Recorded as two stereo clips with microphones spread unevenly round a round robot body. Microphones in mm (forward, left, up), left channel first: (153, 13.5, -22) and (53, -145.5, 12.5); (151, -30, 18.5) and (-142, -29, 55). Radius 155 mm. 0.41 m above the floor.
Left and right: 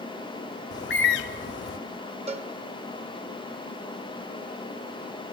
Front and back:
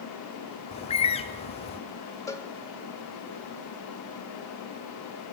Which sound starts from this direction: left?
A bird, at 0.7 s.